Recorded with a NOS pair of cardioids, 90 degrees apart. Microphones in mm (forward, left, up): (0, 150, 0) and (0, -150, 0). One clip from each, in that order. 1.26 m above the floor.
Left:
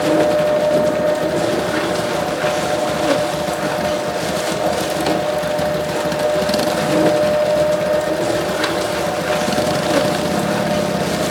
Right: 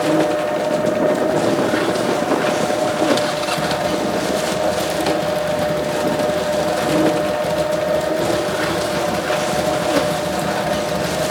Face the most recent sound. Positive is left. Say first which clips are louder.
# left 2 dB
turn(degrees=0)